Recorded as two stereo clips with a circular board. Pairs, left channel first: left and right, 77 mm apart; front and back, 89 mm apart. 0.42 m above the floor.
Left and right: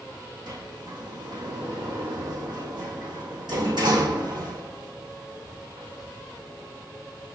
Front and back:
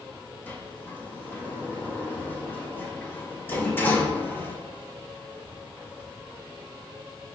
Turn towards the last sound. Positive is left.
turn(degrees=-70)